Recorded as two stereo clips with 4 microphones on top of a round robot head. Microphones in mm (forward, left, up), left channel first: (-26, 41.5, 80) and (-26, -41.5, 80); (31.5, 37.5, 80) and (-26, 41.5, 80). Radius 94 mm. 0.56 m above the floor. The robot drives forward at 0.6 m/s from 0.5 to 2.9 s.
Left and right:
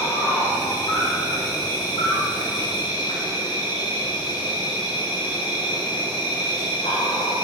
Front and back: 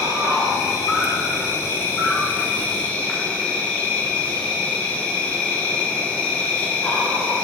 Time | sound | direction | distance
0.0 | an insect | 35° left | 3 m